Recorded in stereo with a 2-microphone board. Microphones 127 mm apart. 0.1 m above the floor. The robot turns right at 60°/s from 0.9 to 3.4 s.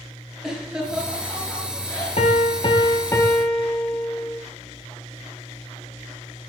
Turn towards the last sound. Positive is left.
turn(degrees=170)